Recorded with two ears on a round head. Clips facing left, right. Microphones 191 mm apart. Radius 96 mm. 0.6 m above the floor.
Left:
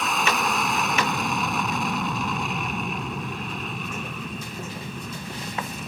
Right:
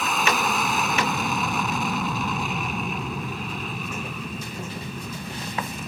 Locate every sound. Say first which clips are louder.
0.0 s an aircraft: right 1 dB; centre (ahead or behind)